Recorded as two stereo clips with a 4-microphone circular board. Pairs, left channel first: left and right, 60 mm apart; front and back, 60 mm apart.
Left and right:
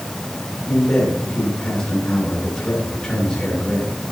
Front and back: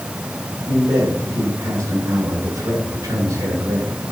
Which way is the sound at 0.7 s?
165° left.